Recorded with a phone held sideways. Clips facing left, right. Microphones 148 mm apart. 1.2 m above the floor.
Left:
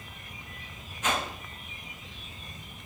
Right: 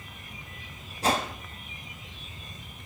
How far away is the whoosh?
About 0.8 m.